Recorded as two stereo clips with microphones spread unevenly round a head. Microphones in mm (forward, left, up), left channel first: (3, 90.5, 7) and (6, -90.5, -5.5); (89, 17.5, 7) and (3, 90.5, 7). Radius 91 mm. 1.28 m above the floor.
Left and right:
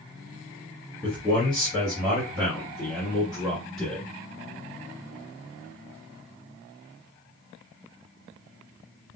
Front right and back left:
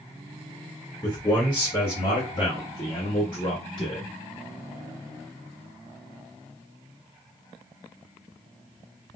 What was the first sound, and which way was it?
A man speaking, 5° left.